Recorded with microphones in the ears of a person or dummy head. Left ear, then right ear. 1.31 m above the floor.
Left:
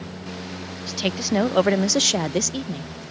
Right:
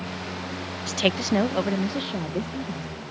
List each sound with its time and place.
0.9 s a woman speaking: 25° right (ahead or behind); by 2.9 s 85° left